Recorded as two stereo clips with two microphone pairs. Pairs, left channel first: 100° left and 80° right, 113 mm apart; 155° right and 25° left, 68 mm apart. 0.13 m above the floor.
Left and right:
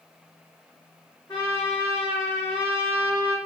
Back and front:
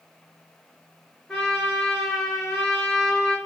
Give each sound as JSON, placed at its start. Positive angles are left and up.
{"t": 1.3, "sound": "a trumpet", "azimuth_deg": 130, "distance_m": 1.5}